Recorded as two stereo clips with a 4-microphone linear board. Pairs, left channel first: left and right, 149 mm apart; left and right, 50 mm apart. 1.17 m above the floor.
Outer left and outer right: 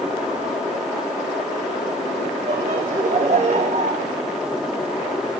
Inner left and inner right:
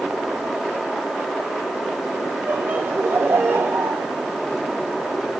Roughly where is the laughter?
Right.